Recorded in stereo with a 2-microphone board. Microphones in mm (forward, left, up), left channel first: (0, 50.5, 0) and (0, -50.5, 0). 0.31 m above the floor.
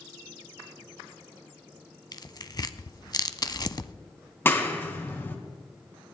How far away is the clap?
About 2.0 m.